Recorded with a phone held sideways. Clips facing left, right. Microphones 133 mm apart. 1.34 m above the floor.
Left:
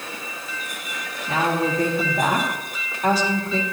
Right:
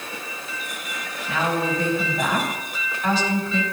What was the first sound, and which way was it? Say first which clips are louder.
A woman speaking: left 2 dB; 40° left (ahead or behind).